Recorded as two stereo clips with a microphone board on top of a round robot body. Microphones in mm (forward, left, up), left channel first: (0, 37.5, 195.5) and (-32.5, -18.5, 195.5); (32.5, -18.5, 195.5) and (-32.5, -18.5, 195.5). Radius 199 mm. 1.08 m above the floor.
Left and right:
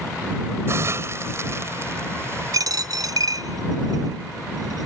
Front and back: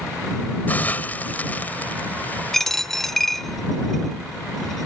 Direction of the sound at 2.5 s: 85° right.